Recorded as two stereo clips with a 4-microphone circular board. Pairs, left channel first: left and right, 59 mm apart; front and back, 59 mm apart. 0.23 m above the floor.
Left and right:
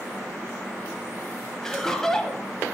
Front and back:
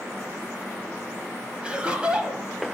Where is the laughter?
160° left, 1.2 m.